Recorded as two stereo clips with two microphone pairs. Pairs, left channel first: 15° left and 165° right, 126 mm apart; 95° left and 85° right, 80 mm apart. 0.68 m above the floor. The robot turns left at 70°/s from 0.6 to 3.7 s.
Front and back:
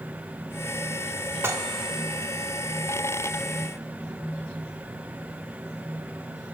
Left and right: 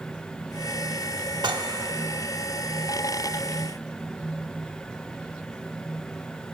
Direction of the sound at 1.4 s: 95° right.